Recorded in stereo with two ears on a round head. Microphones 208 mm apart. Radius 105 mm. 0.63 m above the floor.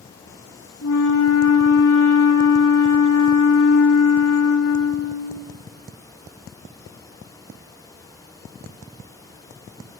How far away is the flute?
About 2.5 m.